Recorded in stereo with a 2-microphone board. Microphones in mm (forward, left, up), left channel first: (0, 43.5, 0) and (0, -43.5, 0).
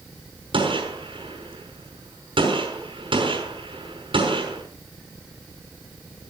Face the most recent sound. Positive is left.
turn(degrees=-75)  # may be behind; listen again after turning